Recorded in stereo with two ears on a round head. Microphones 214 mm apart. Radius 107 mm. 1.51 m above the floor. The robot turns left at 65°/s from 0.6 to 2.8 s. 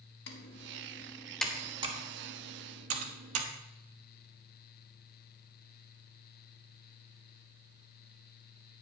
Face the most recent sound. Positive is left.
turn(degrees=-65)  # may be behind; listen again after turning